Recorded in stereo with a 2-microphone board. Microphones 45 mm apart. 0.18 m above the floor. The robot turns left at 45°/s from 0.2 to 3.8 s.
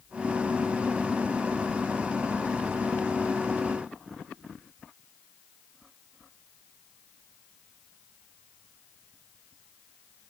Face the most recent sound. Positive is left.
No sound to turn to.